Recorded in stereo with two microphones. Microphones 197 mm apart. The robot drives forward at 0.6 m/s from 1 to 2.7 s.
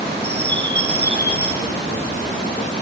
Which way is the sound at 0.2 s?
60° right (ahead or behind).